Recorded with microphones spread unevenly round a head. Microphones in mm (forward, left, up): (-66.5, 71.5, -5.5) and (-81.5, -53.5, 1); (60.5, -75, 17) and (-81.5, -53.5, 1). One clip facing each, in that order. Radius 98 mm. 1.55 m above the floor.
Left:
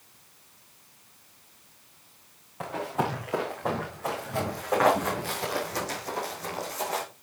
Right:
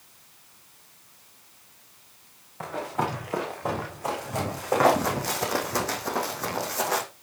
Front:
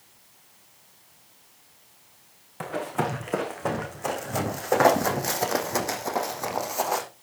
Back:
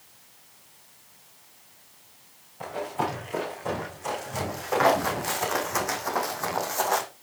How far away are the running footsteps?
About 5.5 m.